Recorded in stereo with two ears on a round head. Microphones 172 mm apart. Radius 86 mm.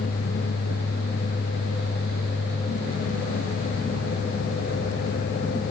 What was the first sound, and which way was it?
Only background noise.